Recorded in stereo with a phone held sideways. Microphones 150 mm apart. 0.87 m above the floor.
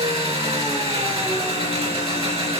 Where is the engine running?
40° right (ahead or behind), 4 m.